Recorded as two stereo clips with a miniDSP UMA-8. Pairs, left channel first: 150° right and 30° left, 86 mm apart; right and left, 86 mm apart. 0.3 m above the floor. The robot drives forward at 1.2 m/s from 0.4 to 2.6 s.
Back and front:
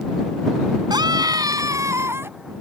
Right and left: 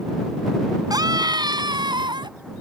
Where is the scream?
55° left; by 2.3 s 90° left.